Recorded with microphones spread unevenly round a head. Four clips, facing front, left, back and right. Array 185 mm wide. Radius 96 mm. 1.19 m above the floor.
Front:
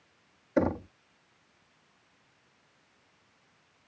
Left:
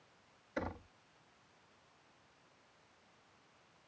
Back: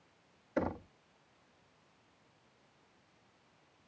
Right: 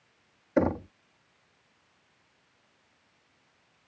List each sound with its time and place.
0.6 s knocking: 60° right